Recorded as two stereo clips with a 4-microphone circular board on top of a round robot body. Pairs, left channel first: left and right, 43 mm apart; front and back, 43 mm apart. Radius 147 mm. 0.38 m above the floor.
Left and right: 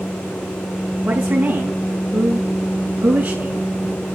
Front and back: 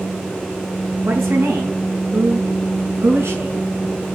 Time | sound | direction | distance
1.0 | a woman speaking | 150° right | 6.5 m